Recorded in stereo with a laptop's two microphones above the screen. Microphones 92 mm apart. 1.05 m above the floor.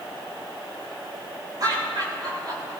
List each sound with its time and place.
1.6 s laughter: 50° right (ahead or behind), 6 m